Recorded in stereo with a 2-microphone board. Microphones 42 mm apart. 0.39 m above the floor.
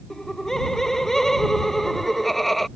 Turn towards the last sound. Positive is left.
turn(degrees=5)  # may be behind; listen again after turning